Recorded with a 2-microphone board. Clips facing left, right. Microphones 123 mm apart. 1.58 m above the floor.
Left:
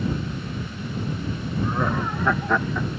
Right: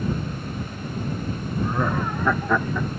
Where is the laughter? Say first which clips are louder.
Even; centre (ahead or behind).